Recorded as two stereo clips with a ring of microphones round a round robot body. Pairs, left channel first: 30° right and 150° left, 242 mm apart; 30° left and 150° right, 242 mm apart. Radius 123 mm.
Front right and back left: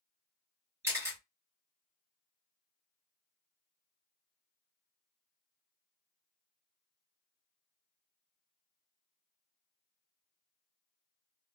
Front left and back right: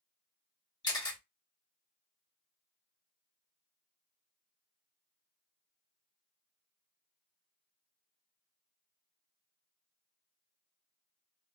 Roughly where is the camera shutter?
Left.